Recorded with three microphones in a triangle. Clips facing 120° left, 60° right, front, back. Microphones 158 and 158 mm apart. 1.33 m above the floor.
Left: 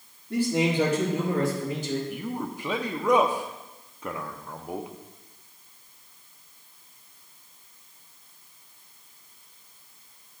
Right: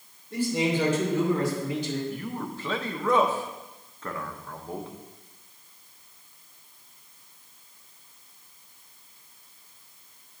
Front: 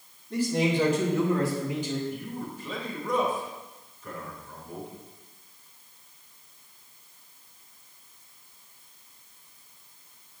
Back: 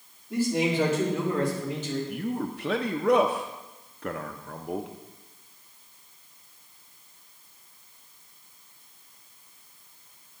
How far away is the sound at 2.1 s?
About 0.6 m.